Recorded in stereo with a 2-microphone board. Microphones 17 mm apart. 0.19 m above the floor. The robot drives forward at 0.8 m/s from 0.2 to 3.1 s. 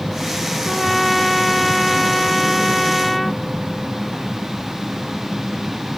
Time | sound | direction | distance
0.6 | a trumpet | 5° left (ahead or behind) | ?